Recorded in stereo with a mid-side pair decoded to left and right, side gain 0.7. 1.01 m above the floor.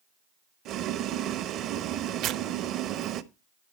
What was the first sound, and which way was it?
Boiling, 55° right.